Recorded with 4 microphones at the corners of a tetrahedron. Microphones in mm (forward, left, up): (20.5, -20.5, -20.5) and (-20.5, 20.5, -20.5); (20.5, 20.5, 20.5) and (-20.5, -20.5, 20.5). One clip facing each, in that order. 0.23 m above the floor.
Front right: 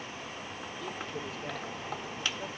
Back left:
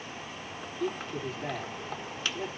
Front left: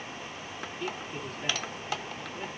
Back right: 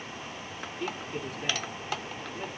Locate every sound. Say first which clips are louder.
0.8 s a man speaking: back left 7 dB, back right 2 dB; 140° left, 5 m